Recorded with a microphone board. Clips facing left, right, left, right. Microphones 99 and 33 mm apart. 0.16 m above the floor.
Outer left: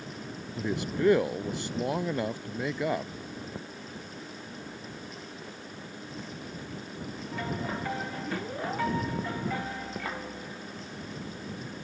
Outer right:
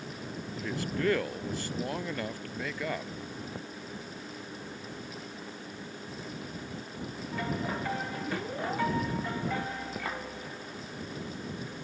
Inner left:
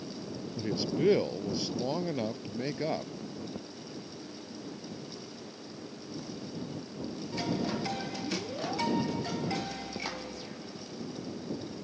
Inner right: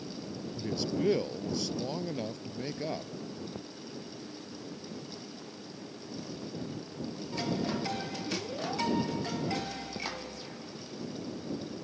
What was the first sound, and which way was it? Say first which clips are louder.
A man speaking: outer left 4 dB, inner left 2 dB; 20° left (ahead or behind).